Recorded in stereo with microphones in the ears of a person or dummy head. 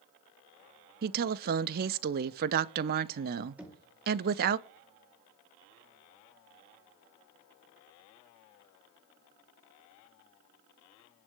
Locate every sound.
1.0 s a woman speaking: 45° right (ahead or behind), 0.7 m
3.6 s knocking: centre (ahead or behind), 2.5 m